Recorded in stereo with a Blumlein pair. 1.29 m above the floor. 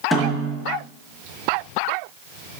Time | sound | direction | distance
0.1 | a snare drum | 5° left | 1.8 m